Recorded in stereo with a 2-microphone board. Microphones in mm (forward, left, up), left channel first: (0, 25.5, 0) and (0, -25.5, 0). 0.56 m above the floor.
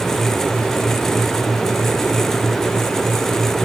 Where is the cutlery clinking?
No cutlery clinking in this recording.